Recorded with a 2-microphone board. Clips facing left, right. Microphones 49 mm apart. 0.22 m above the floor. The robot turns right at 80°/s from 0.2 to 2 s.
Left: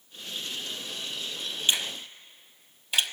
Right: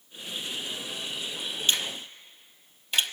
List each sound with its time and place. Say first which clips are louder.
1.7 s a finger snap: even; 15° left (ahead or behind), 1.0 m; by 3.1 s 5° left (ahead or behind), 1.0 m